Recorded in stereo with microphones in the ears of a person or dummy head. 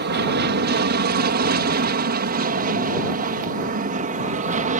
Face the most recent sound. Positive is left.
turn(degrees=-40)  # may be behind; listen again after turning